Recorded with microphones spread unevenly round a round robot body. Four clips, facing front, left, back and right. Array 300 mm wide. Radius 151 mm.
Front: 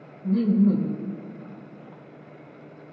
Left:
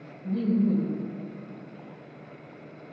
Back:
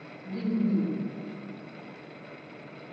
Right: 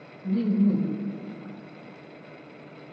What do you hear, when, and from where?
0.2 s laughter: 10° right, 1.3 m